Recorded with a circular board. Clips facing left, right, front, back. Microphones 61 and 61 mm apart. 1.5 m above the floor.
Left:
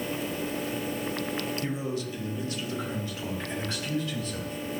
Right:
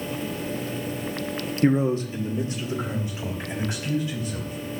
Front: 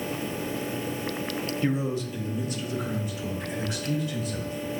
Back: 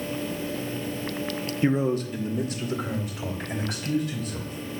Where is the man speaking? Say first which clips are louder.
Right 10 dB, back 6 dB; 110° right, 0.7 m; by 4.8 s 170° right, 5 m.